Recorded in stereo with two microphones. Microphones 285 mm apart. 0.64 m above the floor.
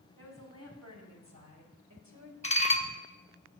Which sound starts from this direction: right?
A woman speaking, at 0.2 s.